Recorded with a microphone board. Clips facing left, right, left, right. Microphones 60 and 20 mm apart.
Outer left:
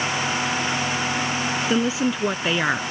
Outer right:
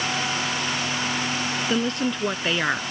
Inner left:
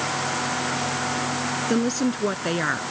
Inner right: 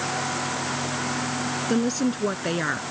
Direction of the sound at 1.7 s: 5° left (ahead or behind).